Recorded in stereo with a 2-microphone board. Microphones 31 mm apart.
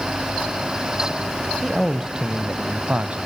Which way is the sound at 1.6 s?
5° right (ahead or behind).